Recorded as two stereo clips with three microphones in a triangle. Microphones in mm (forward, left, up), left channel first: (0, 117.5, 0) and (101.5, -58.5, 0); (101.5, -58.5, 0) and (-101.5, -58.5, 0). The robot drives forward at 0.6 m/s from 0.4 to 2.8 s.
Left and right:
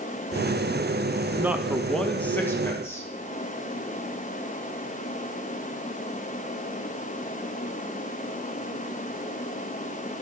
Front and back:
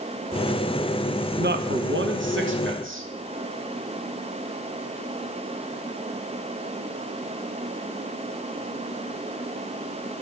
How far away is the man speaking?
About 0.6 m.